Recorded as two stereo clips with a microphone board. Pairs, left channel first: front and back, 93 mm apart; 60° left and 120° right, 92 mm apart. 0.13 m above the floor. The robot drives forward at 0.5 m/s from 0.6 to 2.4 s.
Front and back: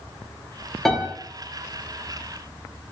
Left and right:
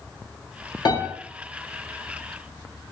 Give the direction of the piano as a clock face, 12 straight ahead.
9 o'clock.